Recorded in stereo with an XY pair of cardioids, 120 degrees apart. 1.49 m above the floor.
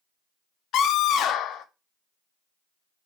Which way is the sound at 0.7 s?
65° left.